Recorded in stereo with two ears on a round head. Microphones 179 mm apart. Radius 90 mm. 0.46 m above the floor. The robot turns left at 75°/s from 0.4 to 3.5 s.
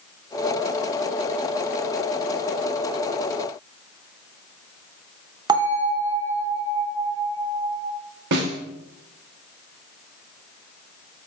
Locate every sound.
5.5 s a bell: 20° right (ahead or behind), 0.5 m
8.3 s a snare drum: 60° right (ahead or behind), 0.6 m